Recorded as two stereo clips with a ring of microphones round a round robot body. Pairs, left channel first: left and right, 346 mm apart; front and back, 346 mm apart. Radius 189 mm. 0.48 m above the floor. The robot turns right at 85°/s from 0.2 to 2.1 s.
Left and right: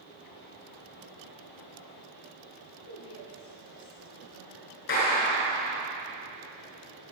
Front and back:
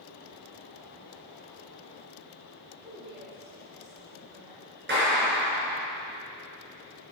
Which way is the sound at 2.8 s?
115° left.